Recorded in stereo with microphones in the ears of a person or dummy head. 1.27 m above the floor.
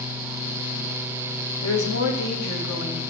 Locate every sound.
1.6 s a woman speaking: 75° left (ahead or behind), 1.2 m